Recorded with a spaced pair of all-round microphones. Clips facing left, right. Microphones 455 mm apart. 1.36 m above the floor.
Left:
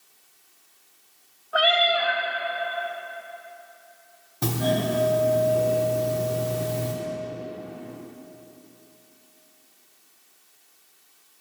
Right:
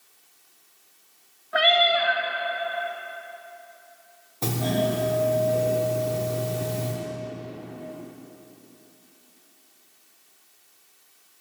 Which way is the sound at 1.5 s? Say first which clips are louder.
Right 1 dB; 40° right (ahead or behind).